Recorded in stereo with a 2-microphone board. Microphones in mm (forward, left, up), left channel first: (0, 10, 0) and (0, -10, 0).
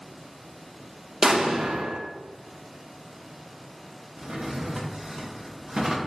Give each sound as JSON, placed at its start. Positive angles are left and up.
{"t": 1.2, "sound": "an explosion", "side_deg": -30, "distance_m": 0.5}
{"t": 4.2, "sound": "a drawer", "side_deg": -45, "distance_m": 0.5}